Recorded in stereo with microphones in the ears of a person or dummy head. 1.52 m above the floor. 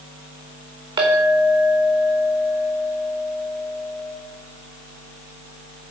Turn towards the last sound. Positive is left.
turn(degrees=-30)  # may be behind; listen again after turning